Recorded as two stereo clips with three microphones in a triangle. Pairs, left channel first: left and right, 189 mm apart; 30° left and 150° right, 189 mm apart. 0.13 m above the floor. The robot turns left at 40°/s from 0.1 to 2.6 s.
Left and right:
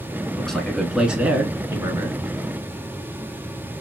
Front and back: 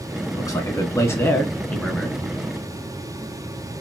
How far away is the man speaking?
About 1.1 m.